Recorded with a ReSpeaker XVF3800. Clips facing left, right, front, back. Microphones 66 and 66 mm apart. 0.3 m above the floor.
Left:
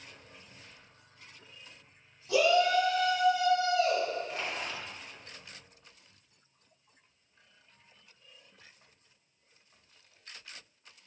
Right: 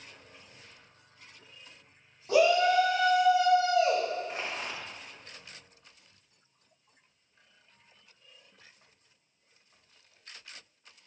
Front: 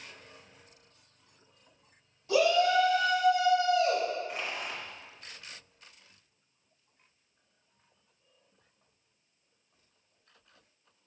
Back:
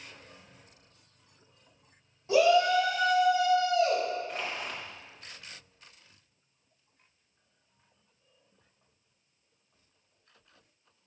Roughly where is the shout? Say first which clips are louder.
Right 2 dB, back 2 dB; behind right.